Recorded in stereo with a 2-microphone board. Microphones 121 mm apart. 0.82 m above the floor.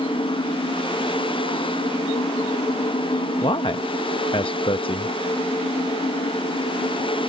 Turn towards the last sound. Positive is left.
turn(degrees=45)  # may be behind; listen again after turning